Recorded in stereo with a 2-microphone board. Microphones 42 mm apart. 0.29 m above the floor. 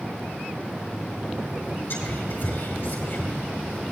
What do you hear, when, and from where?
1.9 s whispering: 60° left (ahead or behind), 5 m